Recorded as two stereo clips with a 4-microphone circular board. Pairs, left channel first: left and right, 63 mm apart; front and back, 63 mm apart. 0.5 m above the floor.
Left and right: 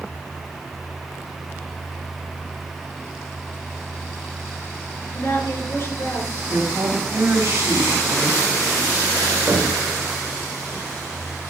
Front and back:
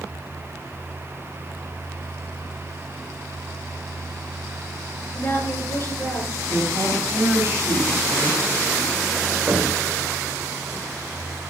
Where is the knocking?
135° right, 2 m.